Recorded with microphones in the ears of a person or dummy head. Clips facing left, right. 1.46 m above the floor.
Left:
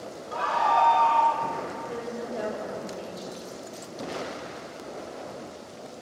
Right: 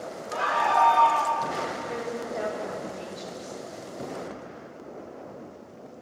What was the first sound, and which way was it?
A scream, 30° right (ahead or behind).